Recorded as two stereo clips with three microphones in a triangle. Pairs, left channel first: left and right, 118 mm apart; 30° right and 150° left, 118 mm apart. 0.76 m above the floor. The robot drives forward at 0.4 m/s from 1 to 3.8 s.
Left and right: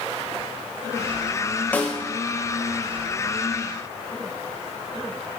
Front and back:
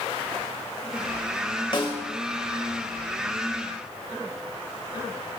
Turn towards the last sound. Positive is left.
turn(degrees=20)